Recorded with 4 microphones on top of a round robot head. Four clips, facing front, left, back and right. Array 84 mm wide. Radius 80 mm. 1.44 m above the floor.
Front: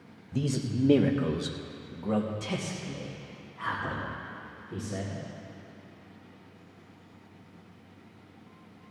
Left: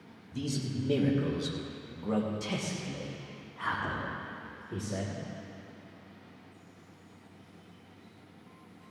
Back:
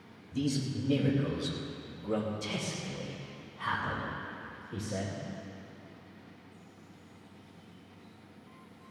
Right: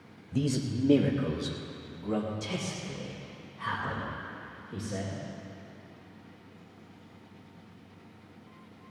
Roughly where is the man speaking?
Ahead right.